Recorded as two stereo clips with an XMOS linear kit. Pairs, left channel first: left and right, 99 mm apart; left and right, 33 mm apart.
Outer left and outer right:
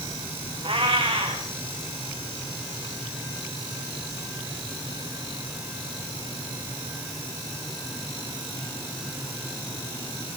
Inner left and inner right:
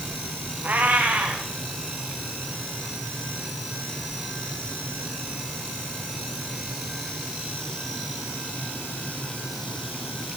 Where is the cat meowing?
65° right (ahead or behind), 5 m.